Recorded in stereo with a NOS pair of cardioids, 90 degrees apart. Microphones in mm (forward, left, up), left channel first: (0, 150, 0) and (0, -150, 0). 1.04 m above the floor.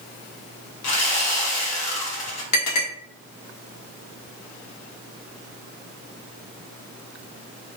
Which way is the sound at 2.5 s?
65° left.